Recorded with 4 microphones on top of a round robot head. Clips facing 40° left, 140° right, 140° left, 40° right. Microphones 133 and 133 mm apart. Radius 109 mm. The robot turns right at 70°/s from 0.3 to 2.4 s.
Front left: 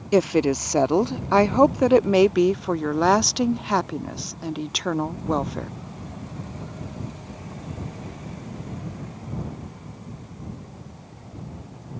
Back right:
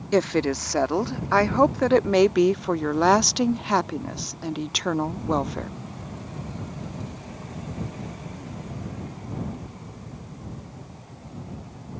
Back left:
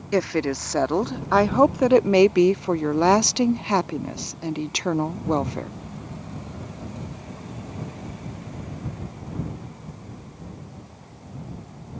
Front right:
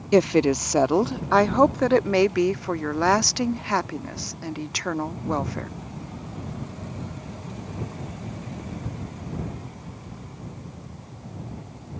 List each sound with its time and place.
0.1 s a woman speaking: 20° right; by 5.7 s 125° left